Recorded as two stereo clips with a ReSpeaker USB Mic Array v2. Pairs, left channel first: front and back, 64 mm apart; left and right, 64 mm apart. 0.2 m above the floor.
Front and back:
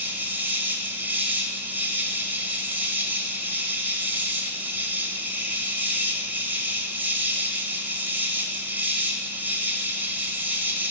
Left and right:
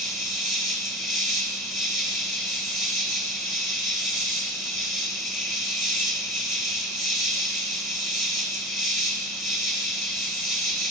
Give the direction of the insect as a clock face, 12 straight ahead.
6 o'clock.